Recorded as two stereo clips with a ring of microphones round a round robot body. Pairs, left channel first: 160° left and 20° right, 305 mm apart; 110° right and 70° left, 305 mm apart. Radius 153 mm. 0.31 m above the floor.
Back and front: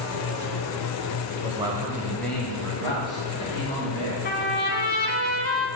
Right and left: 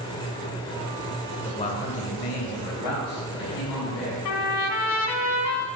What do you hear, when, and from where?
1.4 s a man speaking: 55° right, 0.9 m; by 4.2 s 135° right, 2.5 m
4.2 s a trumpet: 145° right, 1.1 m